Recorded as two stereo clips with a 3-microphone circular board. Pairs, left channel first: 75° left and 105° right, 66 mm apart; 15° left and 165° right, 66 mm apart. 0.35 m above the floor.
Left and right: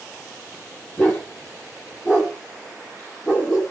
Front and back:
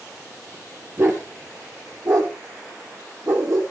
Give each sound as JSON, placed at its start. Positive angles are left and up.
{"t": 1.0, "sound": "a dog barking", "azimuth_deg": 140, "distance_m": 2.5}